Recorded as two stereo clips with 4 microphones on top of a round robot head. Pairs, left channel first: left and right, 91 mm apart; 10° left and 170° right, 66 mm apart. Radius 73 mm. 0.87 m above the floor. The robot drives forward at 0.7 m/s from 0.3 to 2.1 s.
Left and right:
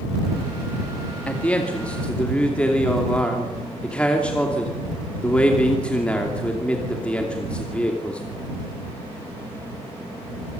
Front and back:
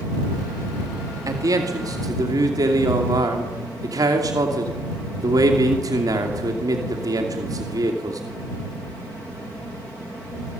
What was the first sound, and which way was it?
A man speaking, 165° left.